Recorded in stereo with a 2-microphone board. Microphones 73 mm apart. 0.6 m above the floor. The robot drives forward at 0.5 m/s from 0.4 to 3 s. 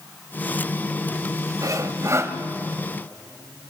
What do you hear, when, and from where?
1.6 s sawing: 50° right (ahead or behind), 1.0 m; by 2.4 s 35° right (ahead or behind), 1.2 m